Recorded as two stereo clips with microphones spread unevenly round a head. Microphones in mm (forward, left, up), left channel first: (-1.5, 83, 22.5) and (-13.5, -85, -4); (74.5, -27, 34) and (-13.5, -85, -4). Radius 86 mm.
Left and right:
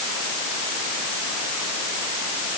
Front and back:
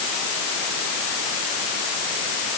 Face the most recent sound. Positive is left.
No sound to turn to.